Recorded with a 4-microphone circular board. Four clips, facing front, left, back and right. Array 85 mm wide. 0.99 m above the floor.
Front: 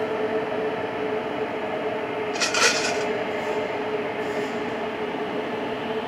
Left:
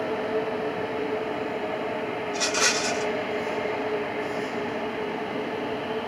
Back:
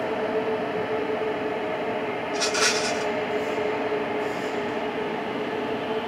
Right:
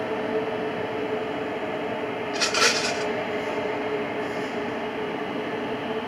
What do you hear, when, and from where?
2.3 s a rattle: 30° right, 1.1 m